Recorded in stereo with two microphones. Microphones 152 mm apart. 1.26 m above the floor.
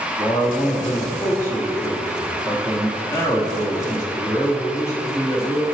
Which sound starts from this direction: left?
A man speaking, at 0.2 s.